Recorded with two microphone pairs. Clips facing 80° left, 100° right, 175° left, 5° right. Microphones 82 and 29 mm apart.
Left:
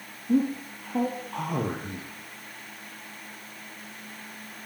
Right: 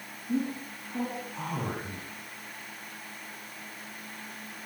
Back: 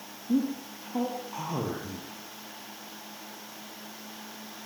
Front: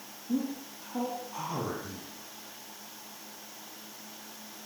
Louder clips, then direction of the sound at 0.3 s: Left 6 dB, back 5 dB; 105° left.